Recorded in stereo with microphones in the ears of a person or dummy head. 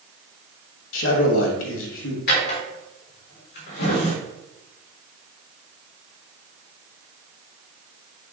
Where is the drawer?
55° left (ahead or behind), 1.5 m.